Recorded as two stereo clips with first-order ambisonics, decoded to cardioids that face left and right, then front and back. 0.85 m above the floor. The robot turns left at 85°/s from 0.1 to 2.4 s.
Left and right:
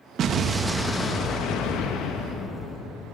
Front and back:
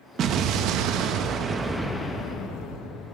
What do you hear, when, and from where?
0.2 s an explosion: 135° right, 0.7 m; by 3.1 s 40° left, 0.7 m